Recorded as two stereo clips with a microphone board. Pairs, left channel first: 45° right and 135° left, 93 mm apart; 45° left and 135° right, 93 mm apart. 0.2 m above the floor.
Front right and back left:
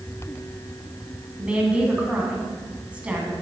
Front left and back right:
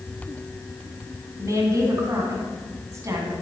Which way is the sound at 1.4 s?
155° right.